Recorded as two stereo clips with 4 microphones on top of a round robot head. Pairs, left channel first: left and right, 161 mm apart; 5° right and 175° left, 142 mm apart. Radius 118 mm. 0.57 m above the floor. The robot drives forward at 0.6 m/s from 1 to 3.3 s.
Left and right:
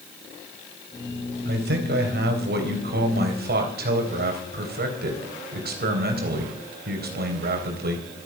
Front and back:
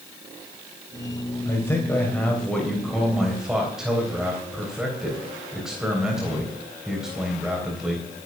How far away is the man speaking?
About 3.5 m.